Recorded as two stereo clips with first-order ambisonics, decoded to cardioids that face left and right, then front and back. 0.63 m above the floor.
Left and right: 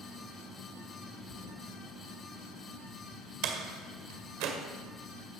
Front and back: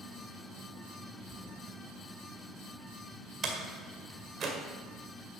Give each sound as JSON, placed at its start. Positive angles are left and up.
{"t": 1.3, "sound": "a thud", "azimuth_deg": 70, "distance_m": 2.5}
{"t": 3.4, "sound": "a door slam", "azimuth_deg": -115, "distance_m": 1.9}